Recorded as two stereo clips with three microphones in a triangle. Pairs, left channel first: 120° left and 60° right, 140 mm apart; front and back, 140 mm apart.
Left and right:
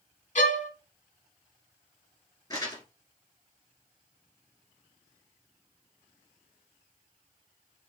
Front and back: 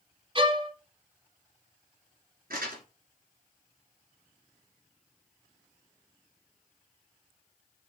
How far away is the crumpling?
About 2 m.